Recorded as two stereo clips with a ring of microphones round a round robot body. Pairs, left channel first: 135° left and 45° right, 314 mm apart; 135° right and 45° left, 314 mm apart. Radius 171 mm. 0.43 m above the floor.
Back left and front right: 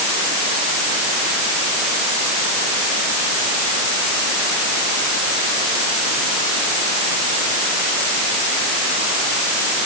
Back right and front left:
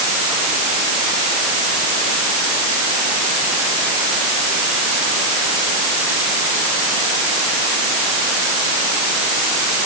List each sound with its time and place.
Only background noise.